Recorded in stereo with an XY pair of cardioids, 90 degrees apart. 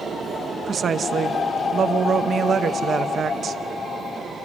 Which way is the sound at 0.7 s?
50° right.